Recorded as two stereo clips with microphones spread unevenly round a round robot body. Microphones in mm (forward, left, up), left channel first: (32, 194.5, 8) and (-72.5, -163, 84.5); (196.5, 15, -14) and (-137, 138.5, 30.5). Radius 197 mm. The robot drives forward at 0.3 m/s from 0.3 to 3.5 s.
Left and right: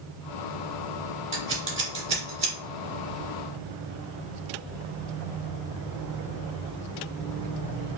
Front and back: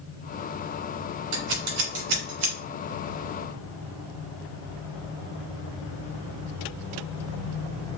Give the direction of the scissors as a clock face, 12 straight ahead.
6 o'clock.